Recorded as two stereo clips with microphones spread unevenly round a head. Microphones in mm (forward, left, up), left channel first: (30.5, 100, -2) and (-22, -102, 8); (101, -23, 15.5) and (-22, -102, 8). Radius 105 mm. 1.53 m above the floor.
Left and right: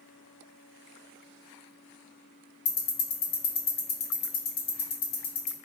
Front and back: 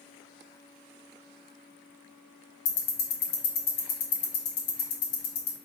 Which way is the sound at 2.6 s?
25° left.